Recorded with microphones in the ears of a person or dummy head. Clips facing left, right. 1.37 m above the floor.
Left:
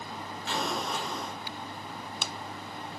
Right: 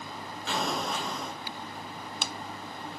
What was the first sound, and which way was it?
An explosion, 70° right (ahead or behind).